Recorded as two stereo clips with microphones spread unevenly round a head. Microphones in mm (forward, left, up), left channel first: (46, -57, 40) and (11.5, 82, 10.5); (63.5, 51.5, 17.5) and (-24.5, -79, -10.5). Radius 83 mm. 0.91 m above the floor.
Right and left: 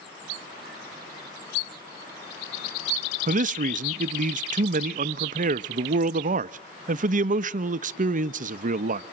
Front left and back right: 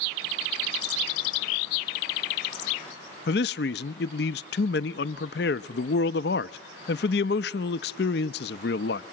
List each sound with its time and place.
3.3 s a man speaking: 90° left, 0.6 m